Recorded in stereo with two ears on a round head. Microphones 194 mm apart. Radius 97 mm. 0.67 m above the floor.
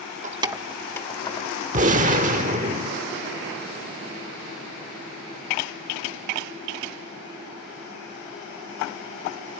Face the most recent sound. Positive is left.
turn(degrees=-35)  # may be behind; listen again after turning